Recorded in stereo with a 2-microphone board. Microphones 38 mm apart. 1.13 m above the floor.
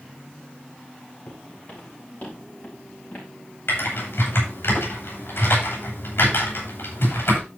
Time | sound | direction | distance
1.3 | footsteps | 50° left (ahead or behind) | 6 m
3.7 | typing on a keyboard | 85° left | 6 m